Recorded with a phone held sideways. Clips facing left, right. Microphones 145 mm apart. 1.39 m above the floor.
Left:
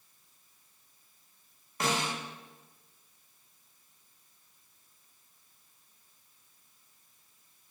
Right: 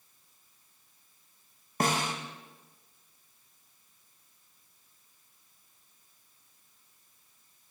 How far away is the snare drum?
About 3 m.